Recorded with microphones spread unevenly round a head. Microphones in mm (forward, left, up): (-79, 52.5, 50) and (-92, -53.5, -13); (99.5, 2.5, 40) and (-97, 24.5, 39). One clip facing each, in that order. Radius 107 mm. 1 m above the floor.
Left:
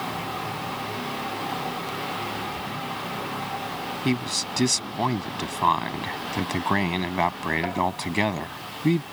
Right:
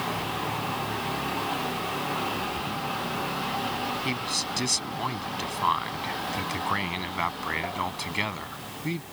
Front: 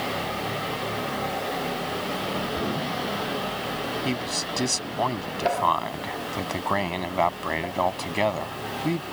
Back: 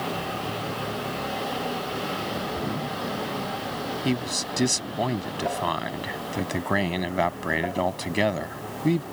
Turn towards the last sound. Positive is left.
turn(degrees=100)